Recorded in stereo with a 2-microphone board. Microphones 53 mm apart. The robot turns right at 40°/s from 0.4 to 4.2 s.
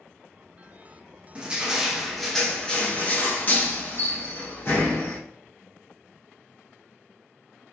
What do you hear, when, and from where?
1.4 s crushing: 30° right, 1.3 m; by 5.2 s 85° left, 1.3 m